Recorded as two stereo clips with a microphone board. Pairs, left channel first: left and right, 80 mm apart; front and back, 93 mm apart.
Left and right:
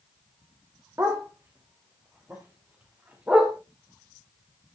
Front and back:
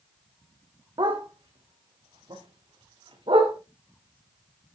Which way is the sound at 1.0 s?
145° right.